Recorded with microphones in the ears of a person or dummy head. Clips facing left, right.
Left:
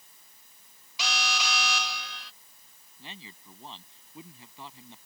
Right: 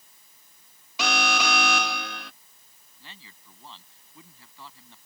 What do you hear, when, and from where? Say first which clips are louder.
1.0 s an alarm: right 8 dB; 40° right (ahead or behind)
3.0 s a man speaking: left 5 dB; 15° left (ahead or behind)